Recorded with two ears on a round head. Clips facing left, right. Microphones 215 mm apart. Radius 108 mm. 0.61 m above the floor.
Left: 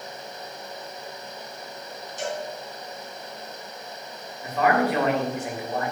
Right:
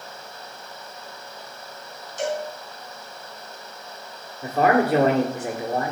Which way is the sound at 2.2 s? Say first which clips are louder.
Right 5 dB; 55° right (ahead or behind).